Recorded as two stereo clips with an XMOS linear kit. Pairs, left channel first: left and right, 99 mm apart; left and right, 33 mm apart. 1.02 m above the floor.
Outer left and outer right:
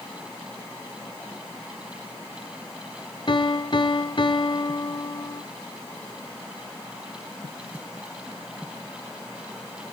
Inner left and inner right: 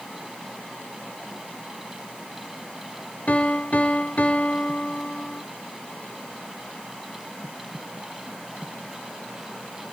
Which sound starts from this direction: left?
A piano, at 3.3 s.